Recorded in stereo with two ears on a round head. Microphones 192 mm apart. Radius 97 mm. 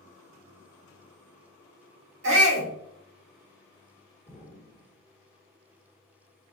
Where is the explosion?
20° left (ahead or behind), 1.8 m.